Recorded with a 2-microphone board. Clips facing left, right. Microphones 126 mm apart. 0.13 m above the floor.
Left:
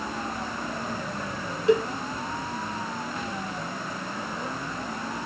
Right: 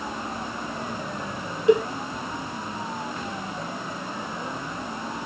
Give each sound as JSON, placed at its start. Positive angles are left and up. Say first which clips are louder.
{"t": 1.7, "sound": "a cowbell", "louder": "right 3 dB", "side_deg": -20, "distance_m": 0.9}